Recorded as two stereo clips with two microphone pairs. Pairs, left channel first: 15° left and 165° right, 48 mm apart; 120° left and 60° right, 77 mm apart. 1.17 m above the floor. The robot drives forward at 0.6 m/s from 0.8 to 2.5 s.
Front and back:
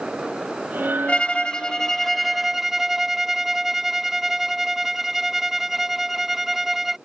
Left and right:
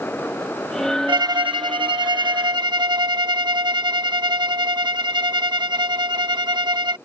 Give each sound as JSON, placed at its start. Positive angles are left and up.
{"t": 1.1, "sound": "a violin", "azimuth_deg": -50}